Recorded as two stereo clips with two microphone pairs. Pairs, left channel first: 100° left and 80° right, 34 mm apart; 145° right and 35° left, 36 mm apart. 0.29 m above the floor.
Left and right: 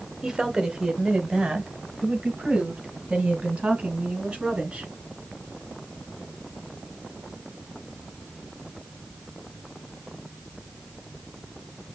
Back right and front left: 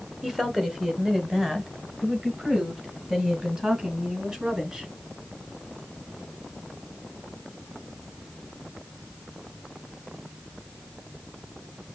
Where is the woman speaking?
20° right, 1.2 m; by 4.9 s 30° right, 3.5 m.